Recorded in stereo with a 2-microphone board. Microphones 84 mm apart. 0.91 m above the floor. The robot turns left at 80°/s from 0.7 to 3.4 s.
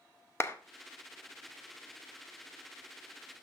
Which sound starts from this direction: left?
A clap, at 0.4 s.